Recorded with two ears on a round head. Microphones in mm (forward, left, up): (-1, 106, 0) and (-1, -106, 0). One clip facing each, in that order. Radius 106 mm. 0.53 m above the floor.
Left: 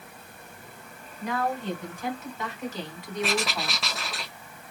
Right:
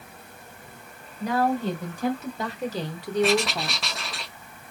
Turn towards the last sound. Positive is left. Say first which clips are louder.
# right 5 dB
turn(degrees=0)  # may be behind; listen again after turning